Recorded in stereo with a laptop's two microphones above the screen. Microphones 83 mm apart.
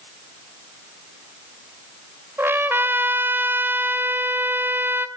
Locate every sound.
2.4 s a trumpet: 30° right (ahead or behind), 2.5 m